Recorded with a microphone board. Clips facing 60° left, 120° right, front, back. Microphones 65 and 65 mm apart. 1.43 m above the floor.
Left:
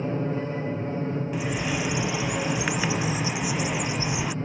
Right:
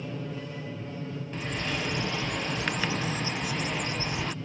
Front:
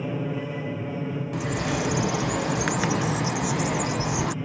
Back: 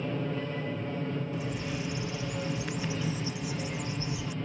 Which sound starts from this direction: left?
An aircraft, at 0.0 s.